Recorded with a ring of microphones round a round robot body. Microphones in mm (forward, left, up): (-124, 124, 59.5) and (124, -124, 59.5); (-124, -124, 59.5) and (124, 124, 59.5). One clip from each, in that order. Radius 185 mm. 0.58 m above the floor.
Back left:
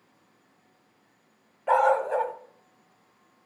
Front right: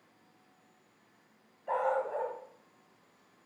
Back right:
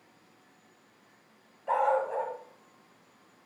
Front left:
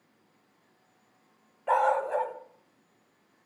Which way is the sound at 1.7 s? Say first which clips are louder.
Back left 9 dB, front left 2 dB; 105° left.